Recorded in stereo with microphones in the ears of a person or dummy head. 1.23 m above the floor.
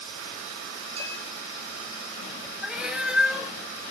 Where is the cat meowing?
Centre (ahead or behind), 0.6 m.